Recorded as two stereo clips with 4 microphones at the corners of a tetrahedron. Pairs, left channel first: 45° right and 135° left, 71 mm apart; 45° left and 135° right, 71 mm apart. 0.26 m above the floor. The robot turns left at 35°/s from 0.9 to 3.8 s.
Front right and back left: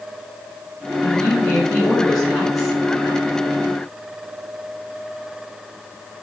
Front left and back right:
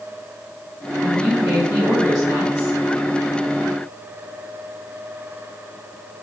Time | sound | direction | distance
1.0 | a woman speaking | 85° right | 2.0 m